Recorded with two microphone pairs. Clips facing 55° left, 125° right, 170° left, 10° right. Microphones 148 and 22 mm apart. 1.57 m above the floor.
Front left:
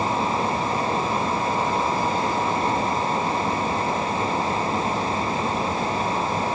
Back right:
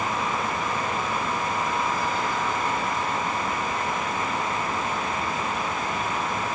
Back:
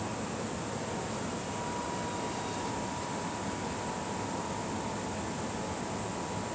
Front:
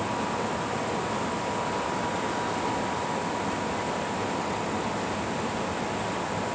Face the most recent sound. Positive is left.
No sound to turn to.